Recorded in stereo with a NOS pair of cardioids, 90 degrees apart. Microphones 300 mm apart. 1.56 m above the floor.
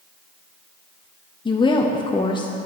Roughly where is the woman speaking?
Ahead.